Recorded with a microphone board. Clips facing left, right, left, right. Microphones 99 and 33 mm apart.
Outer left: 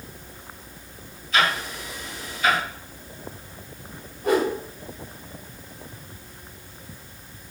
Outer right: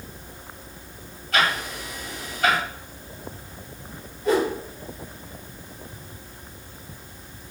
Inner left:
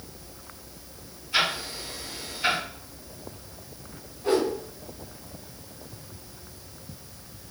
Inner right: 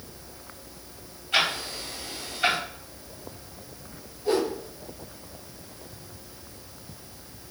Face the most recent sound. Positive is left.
turn(degrees=55)  # may be behind; listen again after turning